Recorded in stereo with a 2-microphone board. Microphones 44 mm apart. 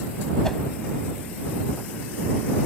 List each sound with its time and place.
0.4 s a whoosh: 10° left (ahead or behind)